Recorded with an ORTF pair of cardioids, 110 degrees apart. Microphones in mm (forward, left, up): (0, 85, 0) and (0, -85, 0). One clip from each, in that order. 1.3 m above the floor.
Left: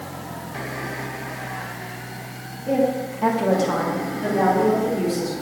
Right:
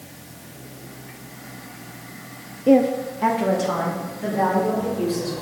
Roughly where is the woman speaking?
Ahead right.